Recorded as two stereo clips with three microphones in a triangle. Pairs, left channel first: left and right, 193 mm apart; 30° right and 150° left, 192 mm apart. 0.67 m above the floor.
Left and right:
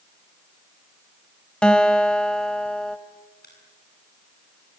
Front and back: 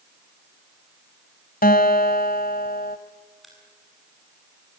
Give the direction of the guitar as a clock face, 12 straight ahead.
12 o'clock.